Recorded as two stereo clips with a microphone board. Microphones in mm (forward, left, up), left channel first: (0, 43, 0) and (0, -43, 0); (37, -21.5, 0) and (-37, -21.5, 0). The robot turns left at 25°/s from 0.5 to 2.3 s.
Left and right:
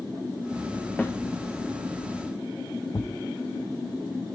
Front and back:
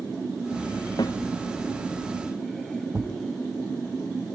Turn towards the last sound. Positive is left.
turn(degrees=125)